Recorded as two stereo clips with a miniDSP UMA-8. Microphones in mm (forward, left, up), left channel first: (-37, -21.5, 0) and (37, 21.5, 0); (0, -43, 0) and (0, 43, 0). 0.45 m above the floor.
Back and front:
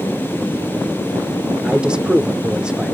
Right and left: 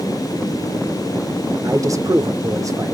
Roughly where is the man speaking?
Left.